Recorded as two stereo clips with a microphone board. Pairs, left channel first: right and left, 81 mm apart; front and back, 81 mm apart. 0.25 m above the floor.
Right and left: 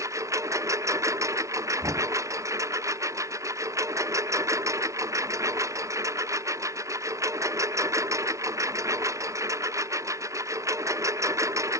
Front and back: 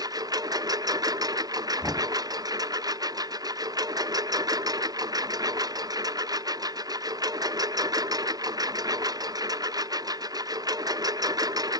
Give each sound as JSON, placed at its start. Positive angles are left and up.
{"t": 0.0, "sound": "a lawn mower", "azimuth_deg": 140}
{"t": 1.8, "sound": "knocking", "azimuth_deg": 105}